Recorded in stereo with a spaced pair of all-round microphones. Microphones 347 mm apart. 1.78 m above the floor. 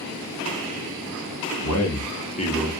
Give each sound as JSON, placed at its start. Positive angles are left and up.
{"t": 1.6, "sound": "a man speaking", "side_deg": 55, "distance_m": 0.8}